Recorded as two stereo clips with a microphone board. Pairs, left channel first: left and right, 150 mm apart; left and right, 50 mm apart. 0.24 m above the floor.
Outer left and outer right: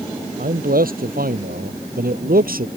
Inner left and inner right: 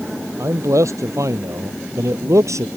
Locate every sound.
0.4 s a man speaking: 75° right (ahead or behind)